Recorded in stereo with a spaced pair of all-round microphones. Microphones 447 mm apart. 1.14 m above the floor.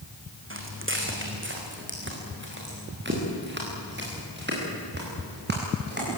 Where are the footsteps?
25° right (ahead or behind), 3.5 m; by 6.2 s 20° right (ahead or behind), 9.5 m.